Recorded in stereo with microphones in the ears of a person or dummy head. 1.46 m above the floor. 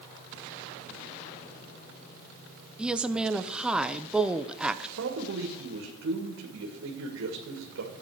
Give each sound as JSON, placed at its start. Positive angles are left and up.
{"t": 2.8, "sound": "a woman speaking", "side_deg": 0, "distance_m": 0.6}
{"t": 5.0, "sound": "a man speaking", "side_deg": -80, "distance_m": 2.0}